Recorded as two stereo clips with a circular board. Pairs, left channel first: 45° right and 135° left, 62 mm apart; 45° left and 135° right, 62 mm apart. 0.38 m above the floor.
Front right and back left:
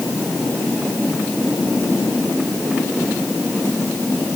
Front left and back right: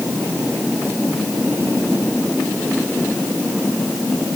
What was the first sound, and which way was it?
Only background noise.